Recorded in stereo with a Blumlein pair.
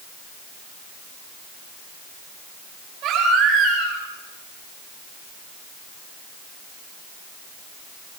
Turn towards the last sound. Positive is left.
turn(degrees=-35)